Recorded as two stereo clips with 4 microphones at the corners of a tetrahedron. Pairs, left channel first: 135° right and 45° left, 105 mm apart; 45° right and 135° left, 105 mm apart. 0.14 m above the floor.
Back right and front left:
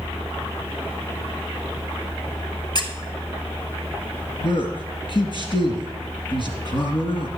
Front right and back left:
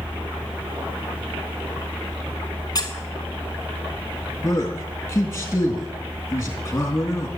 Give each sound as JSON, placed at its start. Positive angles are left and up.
{"t": 2.8, "sound": "a squeak", "azimuth_deg": -90, "distance_m": 1.0}
{"t": 4.4, "sound": "a man speaking", "azimuth_deg": -110, "distance_m": 3.5}